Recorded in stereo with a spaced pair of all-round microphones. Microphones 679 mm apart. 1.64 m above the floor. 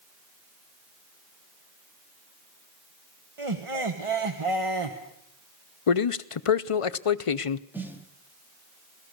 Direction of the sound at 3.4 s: 45° right (ahead or behind).